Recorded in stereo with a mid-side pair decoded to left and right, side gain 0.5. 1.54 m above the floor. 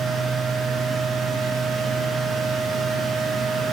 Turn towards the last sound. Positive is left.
turn(degrees=-50)